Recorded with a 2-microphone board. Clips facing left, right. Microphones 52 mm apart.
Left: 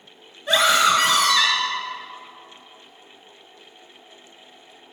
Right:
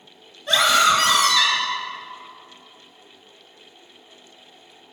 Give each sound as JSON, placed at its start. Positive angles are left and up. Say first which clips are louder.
{"t": 0.5, "sound": "a scream", "louder": "even", "side_deg": 10, "distance_m": 1.5}